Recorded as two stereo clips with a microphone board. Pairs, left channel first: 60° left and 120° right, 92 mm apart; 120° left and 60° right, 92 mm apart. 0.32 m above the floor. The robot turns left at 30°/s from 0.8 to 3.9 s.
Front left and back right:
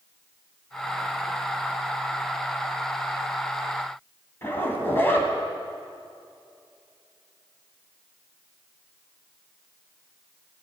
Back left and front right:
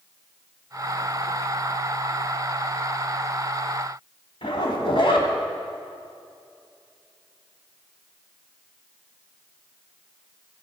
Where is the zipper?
125° left, 1.6 m.